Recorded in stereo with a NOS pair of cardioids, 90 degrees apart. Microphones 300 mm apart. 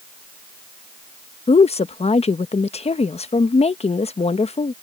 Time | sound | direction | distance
1.5 | a woman speaking | 20° left | ?